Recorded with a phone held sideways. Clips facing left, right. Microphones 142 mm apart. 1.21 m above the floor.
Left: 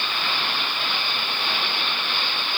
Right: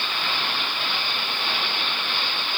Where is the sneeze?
No sneeze in this recording.